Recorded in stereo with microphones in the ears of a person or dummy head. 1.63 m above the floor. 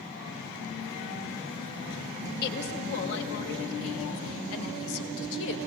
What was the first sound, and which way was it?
A woman speaking, 55° left (ahead or behind).